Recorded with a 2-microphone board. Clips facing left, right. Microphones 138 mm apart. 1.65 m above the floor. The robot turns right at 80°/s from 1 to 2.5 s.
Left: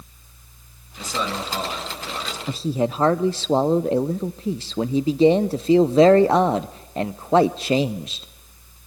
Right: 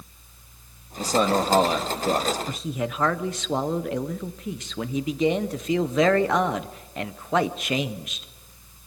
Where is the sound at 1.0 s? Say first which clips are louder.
Right 6 dB; 150° right, 2.5 m; by 2.4 s 40° right, 2.5 m.